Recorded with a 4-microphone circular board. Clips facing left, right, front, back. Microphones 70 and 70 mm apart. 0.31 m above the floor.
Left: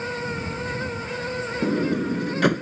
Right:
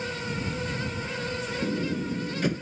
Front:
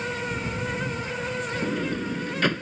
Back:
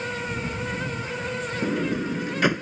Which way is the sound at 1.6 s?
100° left.